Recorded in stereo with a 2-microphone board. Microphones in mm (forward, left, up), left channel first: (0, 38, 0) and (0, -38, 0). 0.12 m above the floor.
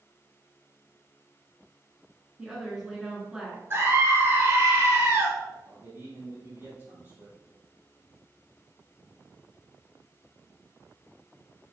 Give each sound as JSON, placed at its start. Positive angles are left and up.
{"t": 2.4, "sound": "a woman speaking", "side_deg": -10, "distance_m": 1.5}
{"t": 3.7, "sound": "a scream", "side_deg": -35, "distance_m": 1.5}
{"t": 5.7, "sound": "a man speaking", "side_deg": -35, "distance_m": 3.5}